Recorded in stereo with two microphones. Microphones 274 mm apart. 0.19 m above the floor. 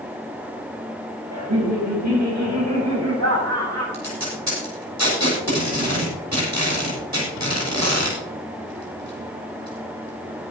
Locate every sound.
1.3 s laughter: 75° right (ahead or behind), 6.5 m; by 3.8 s 65° right (ahead or behind), 8 m
3.9 s tape being pulled: 80° right, 7 m